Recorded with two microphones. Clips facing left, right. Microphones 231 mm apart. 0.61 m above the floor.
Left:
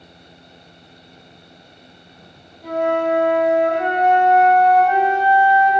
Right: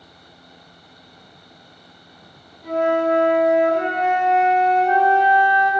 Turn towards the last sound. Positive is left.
turn(degrees=75)  # may be behind; listen again after turning